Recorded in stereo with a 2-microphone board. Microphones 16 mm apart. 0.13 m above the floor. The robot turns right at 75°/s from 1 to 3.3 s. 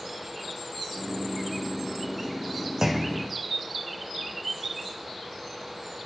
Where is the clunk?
35° right, 2 m; by 3.3 s straight ahead, 2 m.